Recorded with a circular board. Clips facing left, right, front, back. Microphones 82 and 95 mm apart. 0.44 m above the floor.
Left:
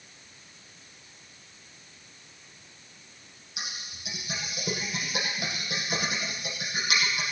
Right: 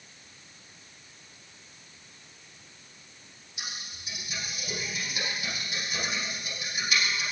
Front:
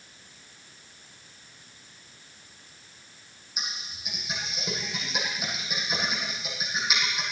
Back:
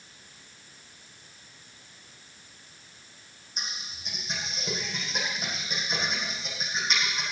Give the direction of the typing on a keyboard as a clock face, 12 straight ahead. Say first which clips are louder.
Left 1 dB, front 1 dB; 9 o'clock.